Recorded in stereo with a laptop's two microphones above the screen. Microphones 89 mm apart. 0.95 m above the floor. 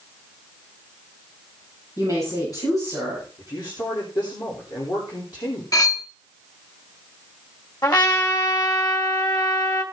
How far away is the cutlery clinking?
About 0.9 m.